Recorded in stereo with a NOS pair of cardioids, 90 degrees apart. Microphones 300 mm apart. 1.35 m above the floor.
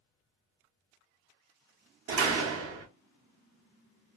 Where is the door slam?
50° right, 0.8 m.